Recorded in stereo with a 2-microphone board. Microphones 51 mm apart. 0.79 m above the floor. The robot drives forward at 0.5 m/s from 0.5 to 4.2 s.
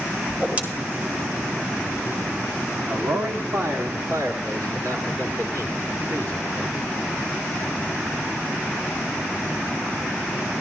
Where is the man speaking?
70° right (ahead or behind), 1.4 m.